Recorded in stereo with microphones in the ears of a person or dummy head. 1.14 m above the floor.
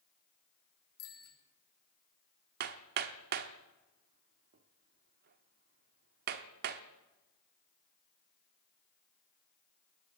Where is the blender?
No blender in this recording.